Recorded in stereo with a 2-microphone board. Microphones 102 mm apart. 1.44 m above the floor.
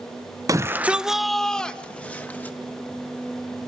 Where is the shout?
35° right (ahead or behind), 0.7 m; by 2.5 s 20° left (ahead or behind), 2.5 m.